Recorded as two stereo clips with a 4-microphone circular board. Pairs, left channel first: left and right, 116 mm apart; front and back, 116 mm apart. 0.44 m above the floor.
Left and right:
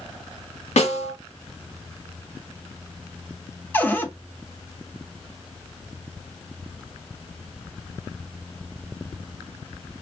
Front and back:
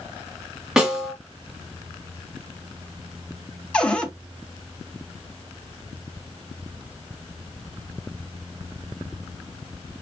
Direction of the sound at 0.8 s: 95° left.